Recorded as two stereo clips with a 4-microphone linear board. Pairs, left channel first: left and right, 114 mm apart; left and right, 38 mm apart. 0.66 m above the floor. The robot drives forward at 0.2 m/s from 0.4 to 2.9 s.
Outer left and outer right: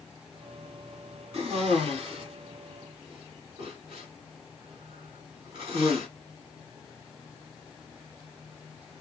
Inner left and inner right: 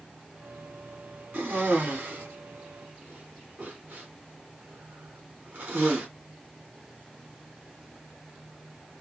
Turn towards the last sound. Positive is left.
turn(degrees=-50)  # may be behind; listen again after turning